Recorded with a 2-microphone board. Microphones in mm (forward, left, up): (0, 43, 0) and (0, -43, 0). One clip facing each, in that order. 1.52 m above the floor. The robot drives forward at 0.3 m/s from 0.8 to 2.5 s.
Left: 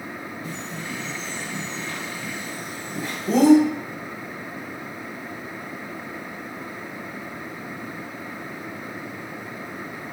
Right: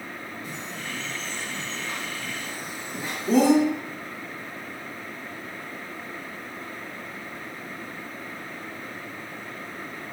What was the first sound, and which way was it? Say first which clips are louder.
A bird: left 3 dB; 5° right (ahead or behind).